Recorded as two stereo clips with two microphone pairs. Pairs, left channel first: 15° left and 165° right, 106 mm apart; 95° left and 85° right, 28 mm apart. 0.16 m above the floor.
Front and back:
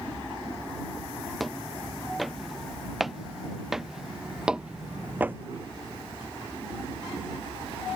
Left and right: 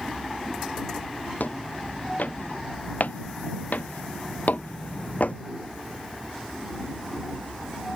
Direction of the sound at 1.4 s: 100° left.